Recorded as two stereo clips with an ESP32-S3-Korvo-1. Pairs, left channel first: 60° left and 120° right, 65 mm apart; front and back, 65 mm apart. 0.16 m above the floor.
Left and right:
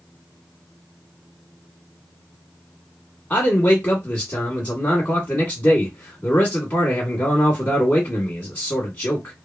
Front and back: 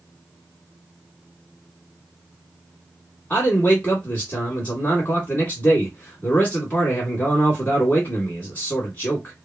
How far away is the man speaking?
About 1.2 m.